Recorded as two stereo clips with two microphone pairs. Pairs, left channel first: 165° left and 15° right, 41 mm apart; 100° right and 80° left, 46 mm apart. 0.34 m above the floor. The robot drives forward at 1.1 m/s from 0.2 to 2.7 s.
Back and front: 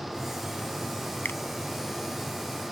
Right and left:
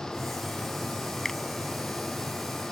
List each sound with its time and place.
1.2 s a finger snap: straight behind